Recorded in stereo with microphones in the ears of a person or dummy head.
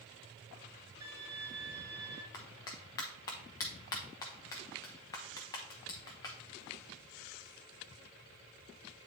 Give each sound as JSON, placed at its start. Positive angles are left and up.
{"t": 1.0, "sound": "a violin", "side_deg": -20, "distance_m": 1.8}
{"t": 2.3, "sound": "a clap", "side_deg": 20, "distance_m": 0.9}